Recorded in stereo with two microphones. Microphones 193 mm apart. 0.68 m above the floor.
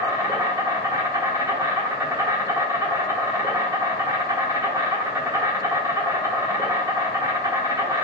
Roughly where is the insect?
Centre.